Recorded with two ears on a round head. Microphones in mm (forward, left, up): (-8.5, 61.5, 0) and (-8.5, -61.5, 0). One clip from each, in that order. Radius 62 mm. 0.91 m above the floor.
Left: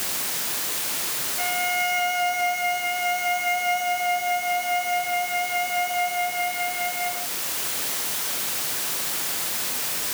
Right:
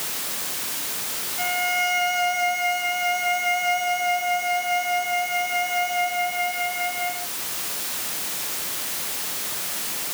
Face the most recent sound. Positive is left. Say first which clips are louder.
# right 2 dB
turn(degrees=-25)  # may be behind; listen again after turning